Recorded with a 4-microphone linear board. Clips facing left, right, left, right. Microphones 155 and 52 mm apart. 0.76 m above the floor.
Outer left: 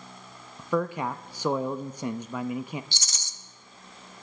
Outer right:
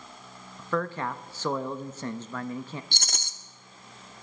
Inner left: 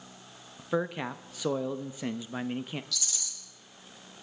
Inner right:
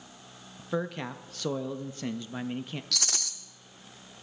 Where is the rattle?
60° right (ahead or behind), 0.9 m.